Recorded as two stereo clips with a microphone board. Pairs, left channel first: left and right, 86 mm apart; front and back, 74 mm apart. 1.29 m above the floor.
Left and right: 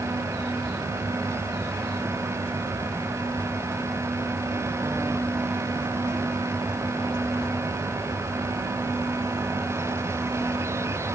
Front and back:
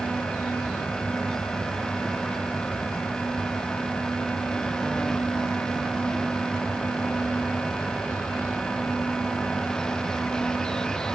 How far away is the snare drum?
I don't hear a snare drum.